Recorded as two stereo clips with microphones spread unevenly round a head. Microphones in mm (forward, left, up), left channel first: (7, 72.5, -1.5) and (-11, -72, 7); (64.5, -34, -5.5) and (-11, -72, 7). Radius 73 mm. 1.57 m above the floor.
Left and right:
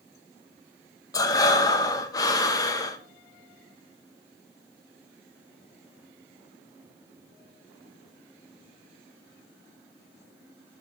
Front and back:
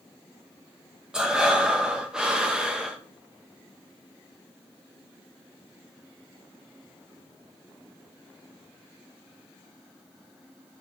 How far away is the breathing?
About 0.8 m.